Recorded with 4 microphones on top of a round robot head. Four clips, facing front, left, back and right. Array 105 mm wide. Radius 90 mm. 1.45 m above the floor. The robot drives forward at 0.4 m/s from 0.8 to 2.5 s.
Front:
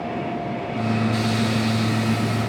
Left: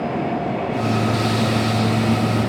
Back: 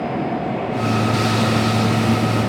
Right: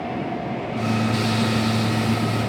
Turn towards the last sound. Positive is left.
No sound to turn to.